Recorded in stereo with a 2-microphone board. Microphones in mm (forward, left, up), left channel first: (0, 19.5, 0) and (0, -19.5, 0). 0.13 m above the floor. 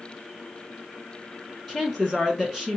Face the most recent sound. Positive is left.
turn(degrees=-5)  # may be behind; listen again after turning